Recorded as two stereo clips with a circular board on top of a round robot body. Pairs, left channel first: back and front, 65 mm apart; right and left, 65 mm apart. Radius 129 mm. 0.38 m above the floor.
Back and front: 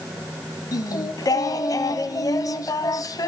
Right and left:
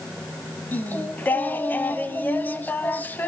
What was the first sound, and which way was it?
Singing, 150° right.